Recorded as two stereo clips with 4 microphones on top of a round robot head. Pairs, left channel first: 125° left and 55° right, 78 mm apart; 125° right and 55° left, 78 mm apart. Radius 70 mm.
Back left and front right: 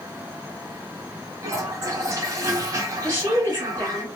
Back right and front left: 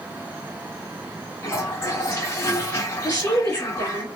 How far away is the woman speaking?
About 1.8 m.